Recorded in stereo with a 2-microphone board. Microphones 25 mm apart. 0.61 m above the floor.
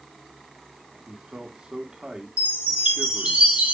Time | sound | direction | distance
1.1 | a man speaking | 40° right (ahead or behind) | 1.8 m
2.4 | a chime | 80° right | 3.5 m